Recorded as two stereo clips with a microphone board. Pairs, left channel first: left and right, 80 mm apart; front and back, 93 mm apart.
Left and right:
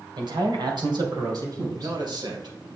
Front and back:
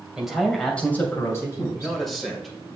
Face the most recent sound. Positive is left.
turn(degrees=-90)